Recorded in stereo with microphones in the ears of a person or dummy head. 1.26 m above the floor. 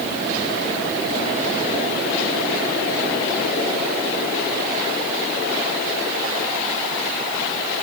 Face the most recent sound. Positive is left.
No sound to turn to.